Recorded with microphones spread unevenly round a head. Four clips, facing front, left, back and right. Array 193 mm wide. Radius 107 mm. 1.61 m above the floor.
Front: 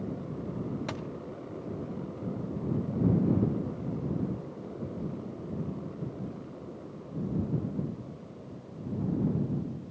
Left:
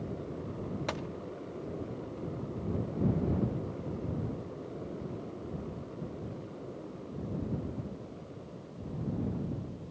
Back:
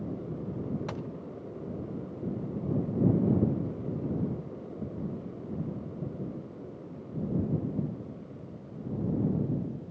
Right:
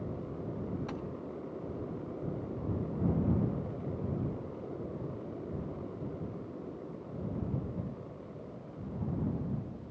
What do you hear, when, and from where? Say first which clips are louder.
0.9 s a gunshot: left 3 dB, even; 85° left